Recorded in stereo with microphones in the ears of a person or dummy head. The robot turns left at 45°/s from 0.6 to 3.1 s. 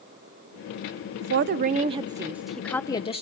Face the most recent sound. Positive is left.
turn(degrees=155)